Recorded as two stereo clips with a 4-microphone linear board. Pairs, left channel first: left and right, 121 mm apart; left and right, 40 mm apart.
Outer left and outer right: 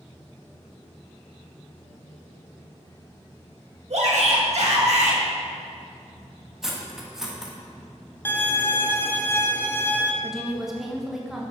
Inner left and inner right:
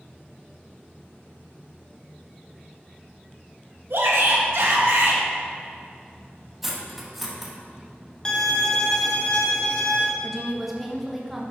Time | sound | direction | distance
3.9 | a shout | 65° right (ahead or behind) | 1.7 m
6.6 | cutlery clinking | 5° right (ahead or behind) | 1.0 m
8.2 | a violin | 15° left (ahead or behind) | 0.8 m
10.2 | a woman speaking | 5° right (ahead or behind) | 1.1 m